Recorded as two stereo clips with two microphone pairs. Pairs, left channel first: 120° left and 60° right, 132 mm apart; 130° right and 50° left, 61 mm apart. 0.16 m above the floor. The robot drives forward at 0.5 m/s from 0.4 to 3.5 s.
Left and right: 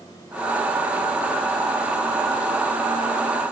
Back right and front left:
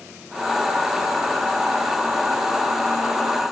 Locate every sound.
Only background noise.